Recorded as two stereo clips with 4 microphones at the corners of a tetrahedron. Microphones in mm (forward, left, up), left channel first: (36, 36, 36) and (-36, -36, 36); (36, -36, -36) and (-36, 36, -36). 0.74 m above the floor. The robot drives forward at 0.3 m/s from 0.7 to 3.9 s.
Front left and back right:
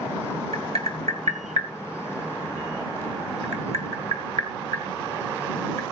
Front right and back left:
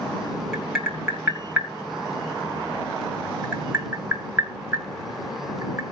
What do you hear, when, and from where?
0.5 s tapping: 140° right, 2.5 m; by 5.8 s 150° right, 3.5 m